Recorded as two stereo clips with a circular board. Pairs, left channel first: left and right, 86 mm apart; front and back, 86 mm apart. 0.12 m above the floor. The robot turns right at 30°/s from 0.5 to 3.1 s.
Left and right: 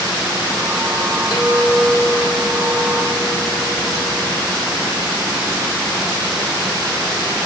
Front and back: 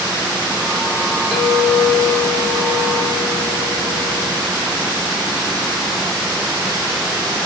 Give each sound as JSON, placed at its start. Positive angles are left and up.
{"t": 1.3, "sound": "a clink", "azimuth_deg": 100, "distance_m": 1.6}